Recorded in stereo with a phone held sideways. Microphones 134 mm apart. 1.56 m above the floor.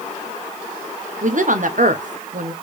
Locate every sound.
1.2 s a woman speaking: 65° right (ahead or behind), 0.8 m